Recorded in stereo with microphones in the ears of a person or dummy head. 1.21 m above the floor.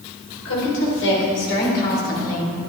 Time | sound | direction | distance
0.5 | a woman speaking | 85° left | 3.5 m